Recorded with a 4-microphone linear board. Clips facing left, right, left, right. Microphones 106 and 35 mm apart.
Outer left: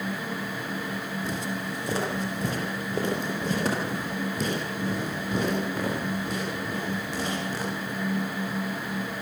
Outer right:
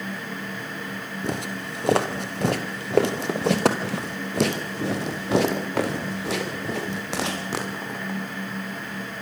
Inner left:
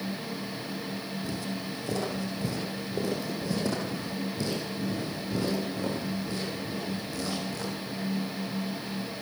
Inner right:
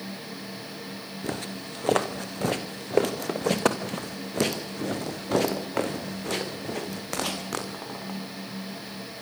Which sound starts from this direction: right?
Footsteps, at 1.2 s.